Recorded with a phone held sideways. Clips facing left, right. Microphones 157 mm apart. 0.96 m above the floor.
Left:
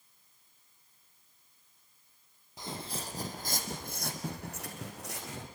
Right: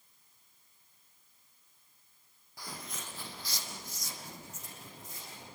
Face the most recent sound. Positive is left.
turn(degrees=80)